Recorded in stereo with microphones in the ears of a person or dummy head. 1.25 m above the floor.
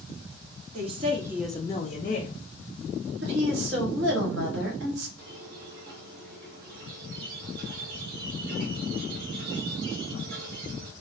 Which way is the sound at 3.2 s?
60° right (ahead or behind).